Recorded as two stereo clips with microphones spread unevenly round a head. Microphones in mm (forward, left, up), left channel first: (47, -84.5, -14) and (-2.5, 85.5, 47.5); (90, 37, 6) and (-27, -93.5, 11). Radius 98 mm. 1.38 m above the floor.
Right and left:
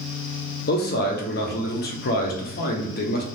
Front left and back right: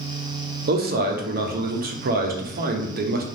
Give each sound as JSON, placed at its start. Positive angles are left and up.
{"t": 0.7, "sound": "a man speaking", "azimuth_deg": -95, "distance_m": 0.6}